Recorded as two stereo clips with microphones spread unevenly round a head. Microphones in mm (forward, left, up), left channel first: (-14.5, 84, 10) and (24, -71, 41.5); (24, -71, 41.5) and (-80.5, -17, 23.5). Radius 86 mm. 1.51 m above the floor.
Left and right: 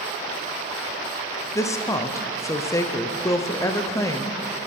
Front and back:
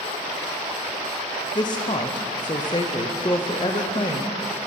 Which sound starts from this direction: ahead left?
A woman speaking, at 1.6 s.